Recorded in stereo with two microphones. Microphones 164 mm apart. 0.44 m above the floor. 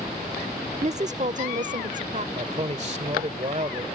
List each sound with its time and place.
0.8 s a woman speaking: 40° right (ahead or behind); by 2.2 s 50° right (ahead or behind)
2.4 s a man speaking: 40° right (ahead or behind)